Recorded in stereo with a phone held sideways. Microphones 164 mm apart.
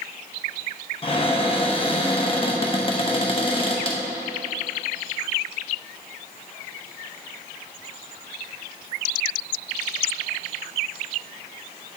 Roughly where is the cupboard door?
Left.